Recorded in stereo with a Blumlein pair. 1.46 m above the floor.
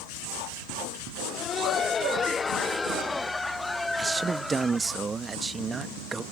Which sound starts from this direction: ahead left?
Laughter, at 1.2 s.